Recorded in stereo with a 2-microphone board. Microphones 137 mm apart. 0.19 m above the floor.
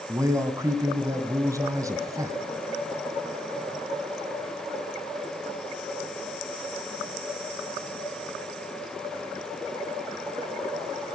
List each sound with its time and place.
0.1 s a man speaking: 25° right (ahead or behind), 1.5 m